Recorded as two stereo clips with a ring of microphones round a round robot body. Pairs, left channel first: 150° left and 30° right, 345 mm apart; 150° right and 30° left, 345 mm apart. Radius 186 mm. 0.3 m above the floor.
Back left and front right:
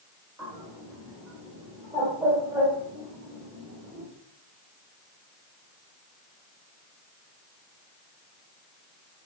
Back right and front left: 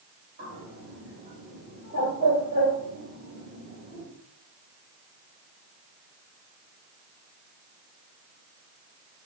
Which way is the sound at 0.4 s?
40° left.